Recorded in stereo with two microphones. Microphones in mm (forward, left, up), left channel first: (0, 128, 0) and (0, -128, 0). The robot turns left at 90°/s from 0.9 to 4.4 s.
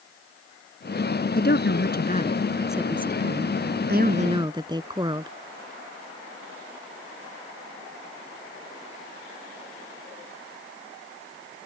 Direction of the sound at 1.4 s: 120° left.